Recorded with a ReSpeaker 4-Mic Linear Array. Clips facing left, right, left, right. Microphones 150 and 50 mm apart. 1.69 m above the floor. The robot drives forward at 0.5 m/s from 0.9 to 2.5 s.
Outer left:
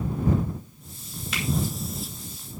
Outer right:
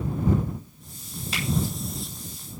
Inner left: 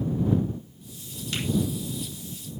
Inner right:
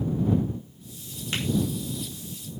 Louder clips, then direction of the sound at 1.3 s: Even, inner right 1 dB; 35° right (ahead or behind).